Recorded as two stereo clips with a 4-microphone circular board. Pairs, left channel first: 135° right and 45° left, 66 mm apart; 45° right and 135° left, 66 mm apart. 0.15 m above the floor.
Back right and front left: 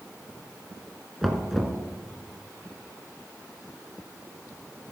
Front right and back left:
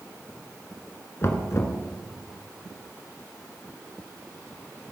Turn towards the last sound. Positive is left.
turn(degrees=-45)